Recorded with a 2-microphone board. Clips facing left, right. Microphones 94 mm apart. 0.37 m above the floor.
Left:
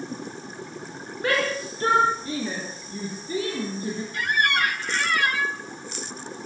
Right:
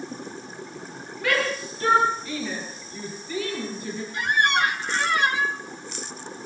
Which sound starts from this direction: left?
A shout, at 1.2 s.